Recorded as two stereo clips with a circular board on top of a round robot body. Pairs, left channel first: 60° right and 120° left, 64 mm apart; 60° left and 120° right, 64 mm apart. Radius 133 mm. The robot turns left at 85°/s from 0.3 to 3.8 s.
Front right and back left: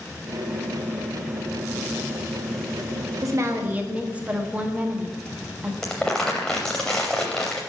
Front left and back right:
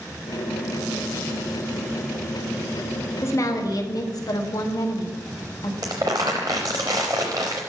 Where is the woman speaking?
105° left, 1.5 m; by 5.7 s 55° left, 1.5 m.